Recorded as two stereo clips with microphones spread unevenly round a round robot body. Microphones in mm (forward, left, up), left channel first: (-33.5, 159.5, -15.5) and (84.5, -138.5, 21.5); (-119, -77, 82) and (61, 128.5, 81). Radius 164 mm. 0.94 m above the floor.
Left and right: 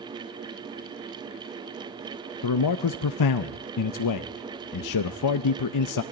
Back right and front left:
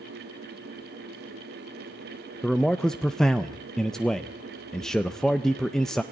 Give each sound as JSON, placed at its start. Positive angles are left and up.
{"t": 2.4, "sound": "a man speaking", "azimuth_deg": 140, "distance_m": 0.5}